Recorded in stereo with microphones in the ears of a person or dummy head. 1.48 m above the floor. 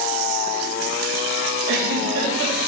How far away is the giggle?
About 3 m.